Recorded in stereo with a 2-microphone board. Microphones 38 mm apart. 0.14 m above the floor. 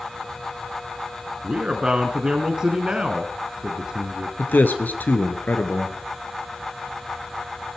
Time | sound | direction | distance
1.4 | a man speaking | 25° right (ahead or behind) | 1.2 m
4.4 | a man speaking | 55° left (ahead or behind) | 1.8 m